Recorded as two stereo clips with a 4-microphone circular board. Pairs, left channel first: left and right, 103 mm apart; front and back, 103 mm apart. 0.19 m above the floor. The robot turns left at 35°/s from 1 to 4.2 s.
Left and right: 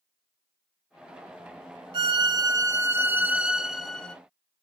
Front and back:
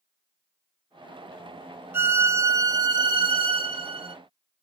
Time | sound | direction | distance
1.9 | a violin | 115° right | 0.5 m